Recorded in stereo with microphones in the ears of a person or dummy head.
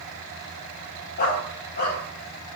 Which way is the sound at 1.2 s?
50° left (ahead or behind).